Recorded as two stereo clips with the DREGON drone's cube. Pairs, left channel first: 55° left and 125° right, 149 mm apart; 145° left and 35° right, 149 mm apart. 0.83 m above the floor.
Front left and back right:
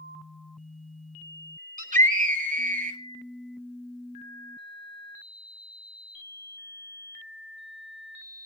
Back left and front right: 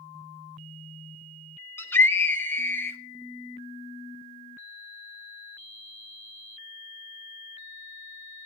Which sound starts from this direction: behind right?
A scream, at 1.8 s.